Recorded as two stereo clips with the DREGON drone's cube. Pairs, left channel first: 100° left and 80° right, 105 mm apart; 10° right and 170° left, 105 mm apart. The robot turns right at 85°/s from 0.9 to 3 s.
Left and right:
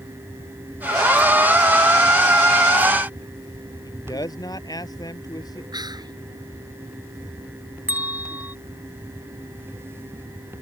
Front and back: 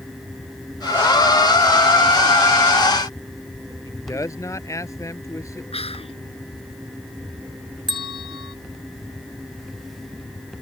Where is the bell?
150° right.